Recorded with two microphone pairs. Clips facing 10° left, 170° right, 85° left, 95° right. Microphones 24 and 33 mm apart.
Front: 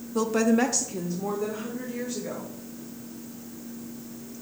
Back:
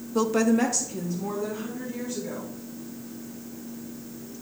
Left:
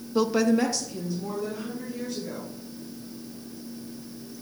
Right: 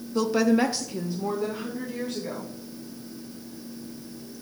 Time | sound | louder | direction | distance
0.1 | a woman speaking | even, even | 125° left | 0.7 m